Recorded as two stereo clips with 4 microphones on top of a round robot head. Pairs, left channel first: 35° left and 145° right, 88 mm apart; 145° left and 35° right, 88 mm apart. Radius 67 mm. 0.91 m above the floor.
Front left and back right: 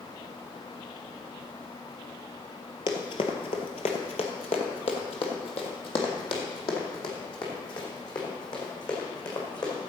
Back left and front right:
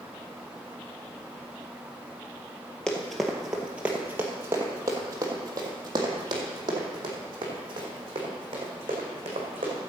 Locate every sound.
2.9 s running footsteps: 65° left, 1.3 m; by 9.9 s 5° right, 4 m